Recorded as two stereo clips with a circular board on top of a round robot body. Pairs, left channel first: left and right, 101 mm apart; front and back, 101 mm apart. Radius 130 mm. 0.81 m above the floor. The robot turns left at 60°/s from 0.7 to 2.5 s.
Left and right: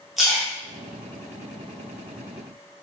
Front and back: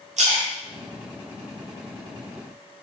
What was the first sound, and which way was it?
A splash, 175° right.